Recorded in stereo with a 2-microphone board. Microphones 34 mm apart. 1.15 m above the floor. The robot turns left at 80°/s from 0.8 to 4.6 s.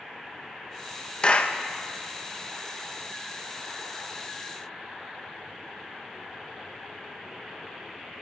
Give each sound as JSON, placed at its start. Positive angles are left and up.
{"t": 1.2, "sound": "a clap", "side_deg": 30, "distance_m": 1.1}